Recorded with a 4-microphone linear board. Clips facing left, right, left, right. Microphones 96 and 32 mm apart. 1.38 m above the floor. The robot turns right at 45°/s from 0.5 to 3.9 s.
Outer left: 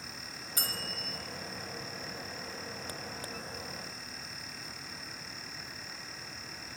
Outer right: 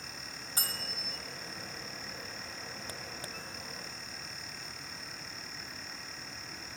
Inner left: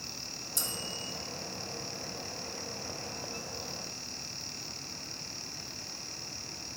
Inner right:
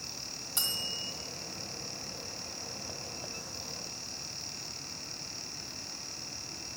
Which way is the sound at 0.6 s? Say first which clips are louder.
Outer left 2 dB, inner right 3 dB; 30° right (ahead or behind).